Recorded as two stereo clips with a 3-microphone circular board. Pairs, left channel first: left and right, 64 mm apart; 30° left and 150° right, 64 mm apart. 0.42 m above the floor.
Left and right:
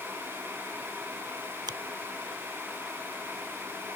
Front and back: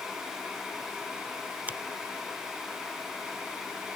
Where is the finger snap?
85° right.